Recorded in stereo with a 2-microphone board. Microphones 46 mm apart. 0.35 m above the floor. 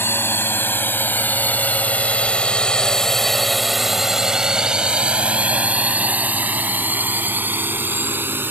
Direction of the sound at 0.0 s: 60° left (ahead or behind).